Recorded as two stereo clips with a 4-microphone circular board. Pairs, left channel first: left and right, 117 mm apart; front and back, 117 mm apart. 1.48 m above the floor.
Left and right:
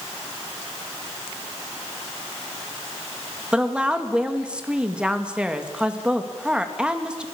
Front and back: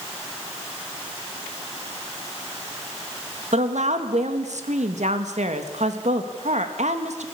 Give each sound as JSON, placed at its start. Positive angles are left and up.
{"t": 3.5, "sound": "a woman speaking", "azimuth_deg": -170, "distance_m": 2.5}